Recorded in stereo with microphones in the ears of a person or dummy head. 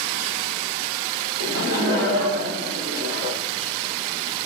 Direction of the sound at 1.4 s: 70° right (ahead or behind).